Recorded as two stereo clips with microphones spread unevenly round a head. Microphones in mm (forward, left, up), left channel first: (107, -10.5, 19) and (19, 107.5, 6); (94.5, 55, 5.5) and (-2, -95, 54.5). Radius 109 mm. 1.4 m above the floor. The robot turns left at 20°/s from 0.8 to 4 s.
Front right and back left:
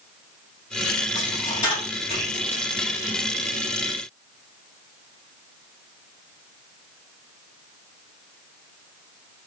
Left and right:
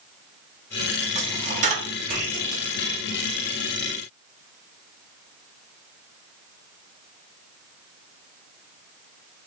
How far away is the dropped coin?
About 1.2 m.